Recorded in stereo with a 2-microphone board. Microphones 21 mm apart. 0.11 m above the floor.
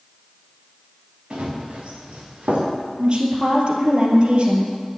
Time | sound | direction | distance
1.3 | running footsteps | 50° right (ahead or behind) | 3.5 m
3.0 | a woman speaking | 50° right (ahead or behind) | 2.5 m